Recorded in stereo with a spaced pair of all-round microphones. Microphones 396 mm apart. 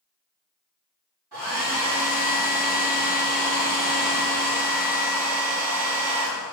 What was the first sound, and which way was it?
A hair dryer, 65° right (ahead or behind).